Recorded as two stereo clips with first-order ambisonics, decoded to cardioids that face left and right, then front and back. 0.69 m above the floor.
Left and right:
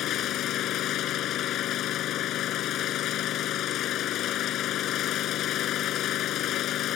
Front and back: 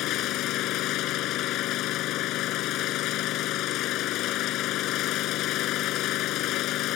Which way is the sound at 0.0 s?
40° left.